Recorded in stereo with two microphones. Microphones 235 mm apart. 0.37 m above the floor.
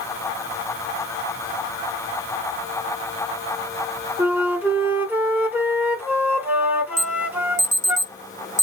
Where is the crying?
I don't hear crying.